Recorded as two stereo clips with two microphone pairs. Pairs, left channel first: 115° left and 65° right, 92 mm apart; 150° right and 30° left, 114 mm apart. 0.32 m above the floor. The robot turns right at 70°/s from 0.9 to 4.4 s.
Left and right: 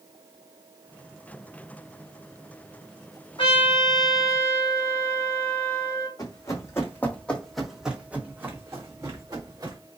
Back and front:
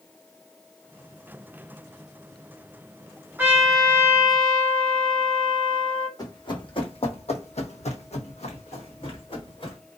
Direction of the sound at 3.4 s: 105° left.